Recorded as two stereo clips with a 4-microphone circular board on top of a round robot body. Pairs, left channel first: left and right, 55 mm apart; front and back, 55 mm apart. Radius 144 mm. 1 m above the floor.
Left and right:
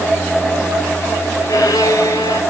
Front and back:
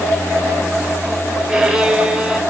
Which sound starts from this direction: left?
A violin, at 1.5 s.